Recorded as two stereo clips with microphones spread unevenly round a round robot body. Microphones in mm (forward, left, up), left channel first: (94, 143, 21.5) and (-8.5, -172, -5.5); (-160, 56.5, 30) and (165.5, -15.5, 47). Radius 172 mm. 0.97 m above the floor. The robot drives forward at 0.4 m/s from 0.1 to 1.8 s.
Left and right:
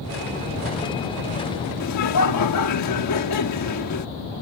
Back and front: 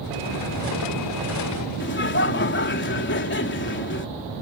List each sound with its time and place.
1.8 s laughter: 115° left